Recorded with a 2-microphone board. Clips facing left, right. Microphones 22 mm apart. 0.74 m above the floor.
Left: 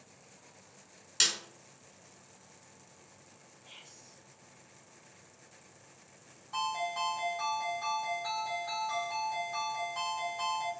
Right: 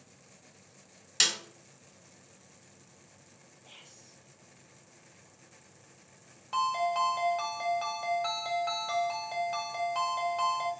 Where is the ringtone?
70° right (ahead or behind), 1.9 m.